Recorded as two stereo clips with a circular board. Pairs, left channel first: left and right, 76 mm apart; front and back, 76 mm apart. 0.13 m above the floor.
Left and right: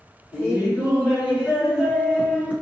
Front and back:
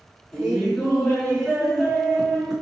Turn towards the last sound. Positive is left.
turn(degrees=-80)